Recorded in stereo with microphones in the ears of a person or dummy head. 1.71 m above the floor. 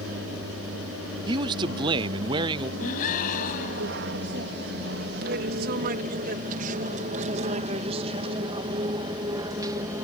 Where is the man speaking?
25° right (ahead or behind).